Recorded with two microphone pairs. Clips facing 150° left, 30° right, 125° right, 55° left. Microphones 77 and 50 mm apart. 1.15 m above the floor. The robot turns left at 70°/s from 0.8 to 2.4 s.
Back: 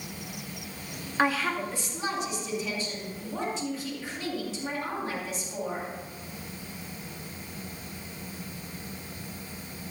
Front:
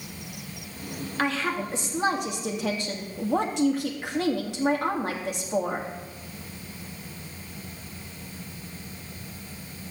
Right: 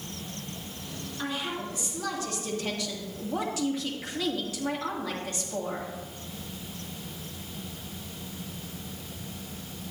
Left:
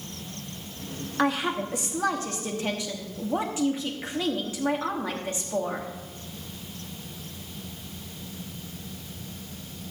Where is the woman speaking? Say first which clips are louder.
Back 1 dB, left 8 dB; 75° left, 1.9 m; by 5.9 s 10° right, 1.9 m.